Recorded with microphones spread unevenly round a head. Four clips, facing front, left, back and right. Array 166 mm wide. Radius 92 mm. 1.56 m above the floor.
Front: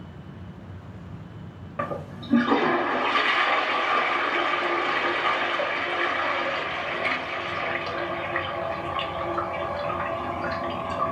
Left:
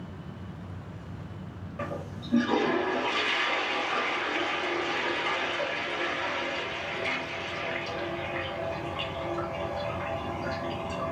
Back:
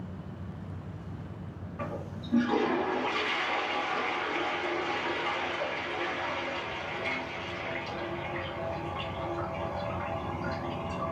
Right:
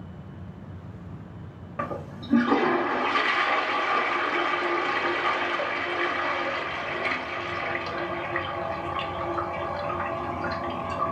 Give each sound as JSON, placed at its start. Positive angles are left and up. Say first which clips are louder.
{"t": 1.8, "sound": "a toilet flushing", "louder": "right 4 dB, front 7 dB", "azimuth_deg": -25, "distance_m": 0.6}